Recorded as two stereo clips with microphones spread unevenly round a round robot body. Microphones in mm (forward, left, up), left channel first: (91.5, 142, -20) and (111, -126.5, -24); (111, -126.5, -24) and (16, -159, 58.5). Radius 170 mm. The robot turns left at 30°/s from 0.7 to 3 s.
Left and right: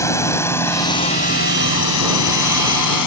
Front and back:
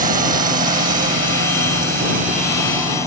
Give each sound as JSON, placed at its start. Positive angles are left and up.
{"t": 0.0, "sound": "a drone", "azimuth_deg": 175}